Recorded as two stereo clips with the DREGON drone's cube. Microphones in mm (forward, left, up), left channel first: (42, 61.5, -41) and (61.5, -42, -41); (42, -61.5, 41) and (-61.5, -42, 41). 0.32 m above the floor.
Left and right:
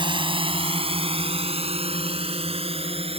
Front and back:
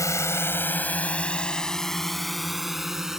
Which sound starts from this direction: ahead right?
A drone, at 0.0 s.